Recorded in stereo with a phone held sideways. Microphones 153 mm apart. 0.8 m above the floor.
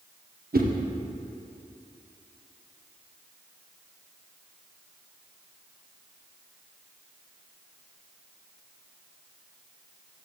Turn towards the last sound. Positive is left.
turn(degrees=-80)